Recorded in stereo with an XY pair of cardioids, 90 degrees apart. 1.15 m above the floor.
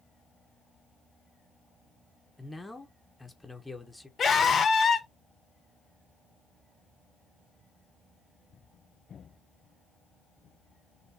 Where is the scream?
55° left, 1.7 m.